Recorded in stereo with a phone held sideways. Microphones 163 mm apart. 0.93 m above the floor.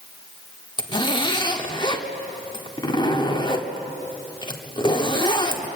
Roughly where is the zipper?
Left.